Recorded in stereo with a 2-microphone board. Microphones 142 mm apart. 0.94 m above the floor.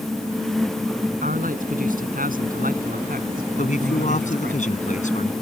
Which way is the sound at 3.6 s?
60° left (ahead or behind).